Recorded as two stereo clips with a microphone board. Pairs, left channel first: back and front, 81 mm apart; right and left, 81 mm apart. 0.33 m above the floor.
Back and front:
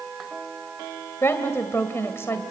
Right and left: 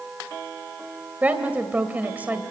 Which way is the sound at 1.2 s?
145° left.